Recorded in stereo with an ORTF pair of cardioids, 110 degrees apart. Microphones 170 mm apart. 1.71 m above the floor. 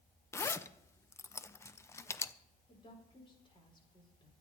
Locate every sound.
0.3 s a zipper: 15° left, 0.6 m
2.7 s a woman speaking: 30° left, 5.5 m